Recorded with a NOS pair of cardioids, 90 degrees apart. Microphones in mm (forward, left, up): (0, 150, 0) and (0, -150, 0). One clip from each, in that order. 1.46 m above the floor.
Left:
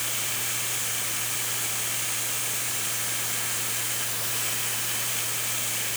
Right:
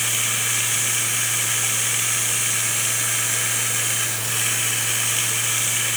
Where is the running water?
65° right.